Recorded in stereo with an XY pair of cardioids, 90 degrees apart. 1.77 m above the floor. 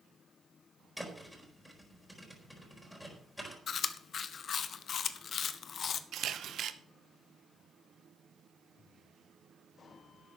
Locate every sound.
1.0 s a thud: 10° left, 4.5 m
3.7 s chewing: 65° left, 0.9 m
6.1 s a camera shutter: 70° right, 1.0 m